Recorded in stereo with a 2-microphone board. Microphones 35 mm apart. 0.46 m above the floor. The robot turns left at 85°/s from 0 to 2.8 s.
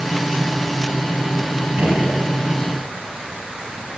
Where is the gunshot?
65° right, 3 m; by 2.2 s 100° right, 3 m.